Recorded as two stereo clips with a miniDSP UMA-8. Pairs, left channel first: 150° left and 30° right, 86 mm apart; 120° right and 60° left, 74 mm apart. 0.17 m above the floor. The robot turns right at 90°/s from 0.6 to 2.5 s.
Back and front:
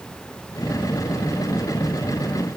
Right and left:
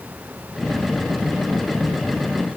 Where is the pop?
I don't hear a pop.